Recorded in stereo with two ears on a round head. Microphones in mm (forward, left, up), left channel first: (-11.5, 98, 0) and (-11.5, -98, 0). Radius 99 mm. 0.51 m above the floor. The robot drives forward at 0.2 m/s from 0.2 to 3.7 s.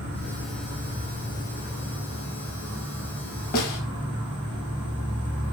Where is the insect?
40° right (ahead or behind), 1.0 m; by 5.5 s 25° right (ahead or behind), 1.5 m.